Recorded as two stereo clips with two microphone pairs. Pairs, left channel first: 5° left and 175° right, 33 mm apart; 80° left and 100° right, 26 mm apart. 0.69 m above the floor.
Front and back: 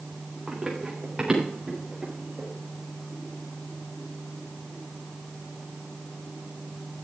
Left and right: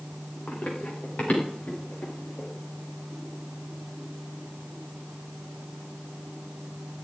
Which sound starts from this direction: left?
Running footsteps, at 0.5 s.